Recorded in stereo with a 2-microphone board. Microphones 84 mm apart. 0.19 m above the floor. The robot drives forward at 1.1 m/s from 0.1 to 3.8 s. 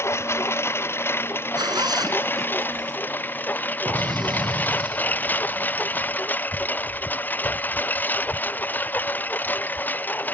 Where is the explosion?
55° right (ahead or behind).